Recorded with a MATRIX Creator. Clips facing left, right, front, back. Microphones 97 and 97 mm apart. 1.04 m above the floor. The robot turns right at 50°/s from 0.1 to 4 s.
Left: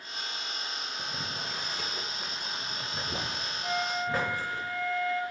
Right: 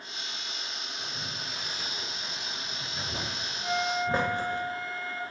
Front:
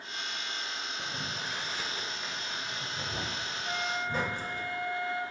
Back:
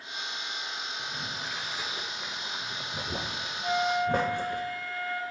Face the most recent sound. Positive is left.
turn(degrees=-170)